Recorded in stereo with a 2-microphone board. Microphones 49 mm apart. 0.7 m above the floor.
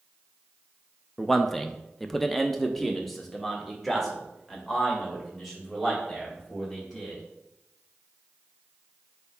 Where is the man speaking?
5° left (ahead or behind), 0.5 m.